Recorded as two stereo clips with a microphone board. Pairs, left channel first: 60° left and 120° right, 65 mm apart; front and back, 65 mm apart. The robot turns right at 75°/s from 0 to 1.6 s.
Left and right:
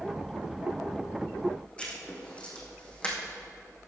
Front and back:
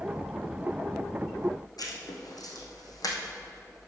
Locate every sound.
1.8 s writing: 10° right, 3 m